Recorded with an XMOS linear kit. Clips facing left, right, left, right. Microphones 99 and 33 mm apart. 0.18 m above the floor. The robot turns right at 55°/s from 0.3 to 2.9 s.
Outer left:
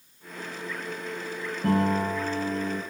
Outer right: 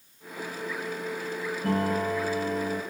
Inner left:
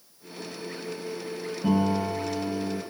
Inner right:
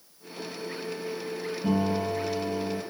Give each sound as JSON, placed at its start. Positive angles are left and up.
{"t": 1.6, "sound": "a piano", "azimuth_deg": 145, "distance_m": 1.7}